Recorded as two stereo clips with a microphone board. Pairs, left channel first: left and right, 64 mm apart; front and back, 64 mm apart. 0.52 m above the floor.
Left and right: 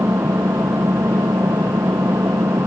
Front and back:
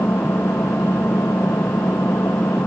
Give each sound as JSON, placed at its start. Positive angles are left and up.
{"t": 0.0, "sound": "an engine running", "azimuth_deg": -50}